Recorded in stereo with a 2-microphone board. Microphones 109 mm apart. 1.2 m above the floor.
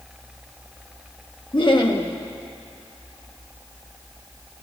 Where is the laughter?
45° left (ahead or behind), 1.3 m.